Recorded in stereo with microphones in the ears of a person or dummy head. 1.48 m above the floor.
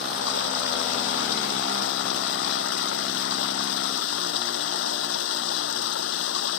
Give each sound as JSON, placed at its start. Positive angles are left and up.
{"t": 0.0, "sound": "running water", "side_deg": 80}